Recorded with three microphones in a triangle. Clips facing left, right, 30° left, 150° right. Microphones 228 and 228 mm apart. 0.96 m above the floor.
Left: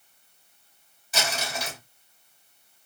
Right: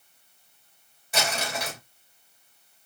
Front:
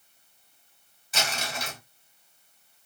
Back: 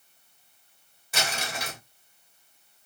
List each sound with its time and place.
1.1 s crumpling: 120° right, 2.5 m